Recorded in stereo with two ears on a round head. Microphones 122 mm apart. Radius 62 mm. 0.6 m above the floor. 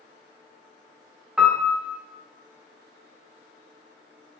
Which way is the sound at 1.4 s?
5° right (ahead or behind).